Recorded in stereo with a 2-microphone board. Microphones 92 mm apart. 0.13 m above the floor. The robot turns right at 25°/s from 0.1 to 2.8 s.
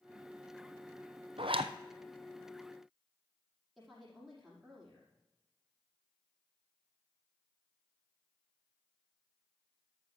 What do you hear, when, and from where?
1.4 s a zipper: 75° right (ahead or behind), 0.8 m; by 1.7 s 80° right, 0.8 m
3.8 s a woman speaking: centre (ahead or behind), 5.5 m